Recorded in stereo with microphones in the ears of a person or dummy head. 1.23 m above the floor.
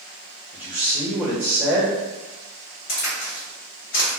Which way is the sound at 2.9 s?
65° left (ahead or behind).